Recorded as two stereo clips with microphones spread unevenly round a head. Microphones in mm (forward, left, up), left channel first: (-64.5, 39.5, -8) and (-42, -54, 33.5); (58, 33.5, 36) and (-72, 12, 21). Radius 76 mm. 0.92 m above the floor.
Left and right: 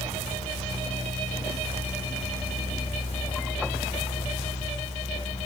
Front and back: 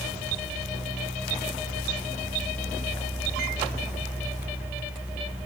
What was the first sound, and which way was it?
Only background noise.